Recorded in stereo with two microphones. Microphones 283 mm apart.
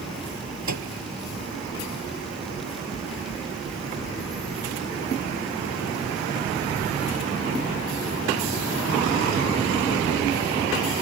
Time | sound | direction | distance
0.7 | a microwave | 75° right (ahead or behind) | ?
2.6 | knocking | 75° left (ahead or behind) | ?